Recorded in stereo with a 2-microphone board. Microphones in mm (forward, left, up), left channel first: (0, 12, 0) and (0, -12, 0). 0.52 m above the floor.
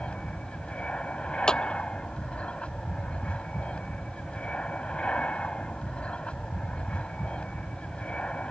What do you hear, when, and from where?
0.0 s an aircraft: 55° left (ahead or behind)
1.5 s a clap: 35° left (ahead or behind)